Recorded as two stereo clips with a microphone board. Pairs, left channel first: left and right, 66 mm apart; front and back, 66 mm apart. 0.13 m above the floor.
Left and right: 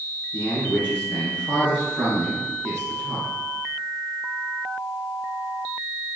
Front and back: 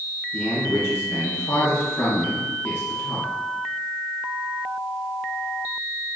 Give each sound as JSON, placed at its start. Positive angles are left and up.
{"t": 0.3, "sound": "a man speaking", "azimuth_deg": 35, "distance_m": 2.0}